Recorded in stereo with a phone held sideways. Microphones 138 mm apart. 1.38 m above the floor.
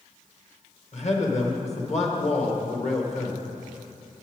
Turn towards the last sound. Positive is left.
turn(degrees=50)  # may be behind; listen again after turning